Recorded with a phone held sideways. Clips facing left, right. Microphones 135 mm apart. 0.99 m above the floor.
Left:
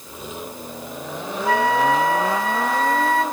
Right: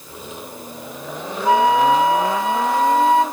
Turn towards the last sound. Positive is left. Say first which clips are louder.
# right 4 dB
turn(degrees=-20)  # may be behind; listen again after turning